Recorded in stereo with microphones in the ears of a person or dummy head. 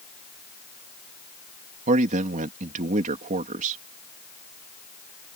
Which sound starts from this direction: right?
A man speaking, at 1.9 s.